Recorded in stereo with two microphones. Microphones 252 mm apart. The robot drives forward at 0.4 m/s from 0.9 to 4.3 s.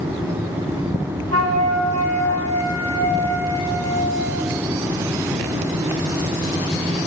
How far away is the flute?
About 4.5 m.